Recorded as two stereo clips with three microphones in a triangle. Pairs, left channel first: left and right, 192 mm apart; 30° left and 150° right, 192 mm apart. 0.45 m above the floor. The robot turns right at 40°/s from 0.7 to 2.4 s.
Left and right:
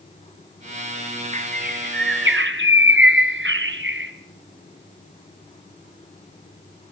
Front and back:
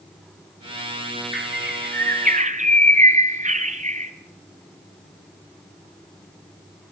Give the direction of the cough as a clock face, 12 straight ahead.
I don't hear a cough.